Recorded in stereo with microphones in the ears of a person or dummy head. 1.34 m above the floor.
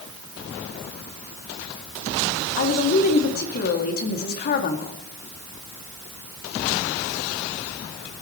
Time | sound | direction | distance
2.6 | a woman speaking | 45° left (ahead or behind) | 2.5 m